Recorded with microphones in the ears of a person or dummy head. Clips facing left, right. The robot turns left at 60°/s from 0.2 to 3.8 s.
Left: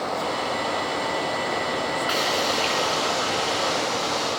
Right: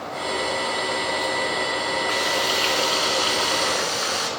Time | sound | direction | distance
2.1 | frying | 15° left | 6.5 m